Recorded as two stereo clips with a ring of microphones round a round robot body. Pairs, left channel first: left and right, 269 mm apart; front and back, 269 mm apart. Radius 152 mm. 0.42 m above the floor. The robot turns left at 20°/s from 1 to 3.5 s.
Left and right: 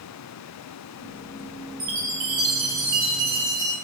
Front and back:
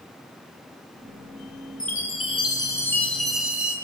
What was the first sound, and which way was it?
A chime, 60° right.